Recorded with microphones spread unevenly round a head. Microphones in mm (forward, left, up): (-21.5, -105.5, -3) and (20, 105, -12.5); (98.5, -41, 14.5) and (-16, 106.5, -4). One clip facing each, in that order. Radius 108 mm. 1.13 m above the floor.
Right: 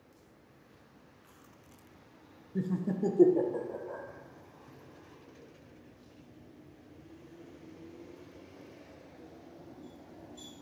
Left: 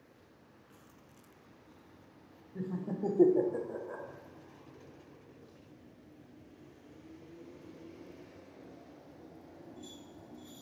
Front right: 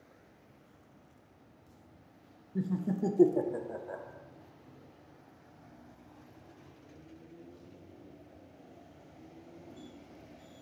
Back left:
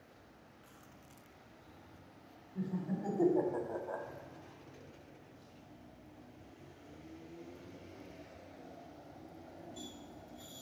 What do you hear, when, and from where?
2.5 s laughter: 70° right, 0.7 m; by 4.0 s 30° left, 0.8 m